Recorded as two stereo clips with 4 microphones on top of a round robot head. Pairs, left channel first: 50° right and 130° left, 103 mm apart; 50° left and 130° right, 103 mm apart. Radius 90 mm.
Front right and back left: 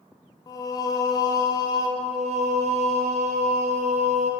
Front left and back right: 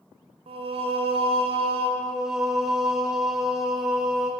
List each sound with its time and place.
0.5 s singing: 105° right, 1.1 m
2.0 s singing: 145° left, 0.6 m